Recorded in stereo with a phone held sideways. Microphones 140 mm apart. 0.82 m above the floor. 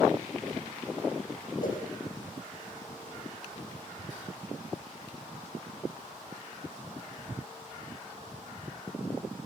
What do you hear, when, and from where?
1.6 s a whoosh: 80° left, 6 m